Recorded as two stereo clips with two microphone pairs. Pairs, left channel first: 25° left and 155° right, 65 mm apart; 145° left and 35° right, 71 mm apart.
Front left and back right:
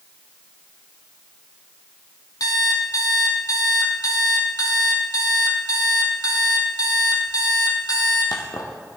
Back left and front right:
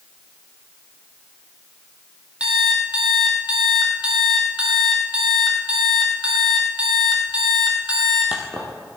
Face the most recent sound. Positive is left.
turn(degrees=40)